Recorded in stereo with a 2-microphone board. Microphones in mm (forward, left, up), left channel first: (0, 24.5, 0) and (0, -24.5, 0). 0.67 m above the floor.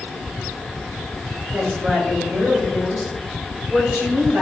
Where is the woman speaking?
30° right (ahead or behind), 2.5 m; by 4.4 s 40° right (ahead or behind), 4 m.